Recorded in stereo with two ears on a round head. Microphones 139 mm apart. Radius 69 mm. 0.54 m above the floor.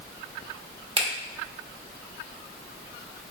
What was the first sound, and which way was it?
A finger snap, 35° right (ahead or behind).